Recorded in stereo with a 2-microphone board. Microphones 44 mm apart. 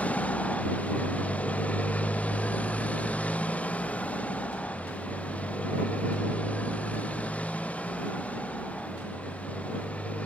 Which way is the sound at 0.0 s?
30° left (ahead or behind).